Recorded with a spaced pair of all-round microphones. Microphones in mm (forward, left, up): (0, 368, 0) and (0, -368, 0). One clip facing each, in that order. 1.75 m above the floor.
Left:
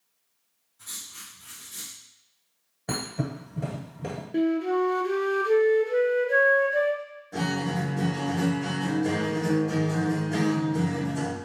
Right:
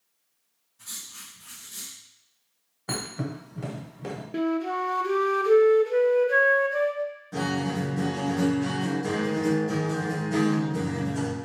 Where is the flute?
45° right (ahead or behind), 0.5 m.